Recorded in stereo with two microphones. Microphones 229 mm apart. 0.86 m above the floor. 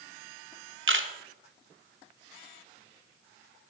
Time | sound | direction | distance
0.9 | a camera shutter | 65° right (ahead or behind) | 0.6 m